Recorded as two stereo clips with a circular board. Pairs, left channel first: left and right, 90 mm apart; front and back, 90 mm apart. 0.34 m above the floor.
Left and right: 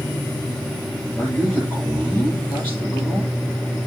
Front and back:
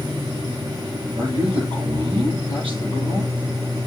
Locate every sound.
1.2 s a man speaking: 165° left, 8.5 m